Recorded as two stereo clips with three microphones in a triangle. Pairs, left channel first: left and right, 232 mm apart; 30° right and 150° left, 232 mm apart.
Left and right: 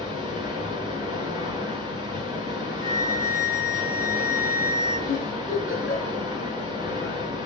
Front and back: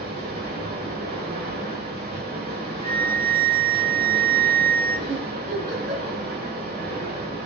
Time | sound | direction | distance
0.0 | running water | 160° right | 1.0 m
2.8 | a flute | 80° right | 0.8 m
5.1 | a giggle | 95° left | 1.3 m